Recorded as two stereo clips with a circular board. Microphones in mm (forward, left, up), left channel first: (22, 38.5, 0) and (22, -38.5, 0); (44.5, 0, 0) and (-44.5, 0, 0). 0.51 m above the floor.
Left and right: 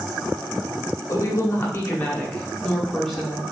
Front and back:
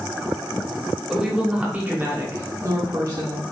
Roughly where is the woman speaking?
Left.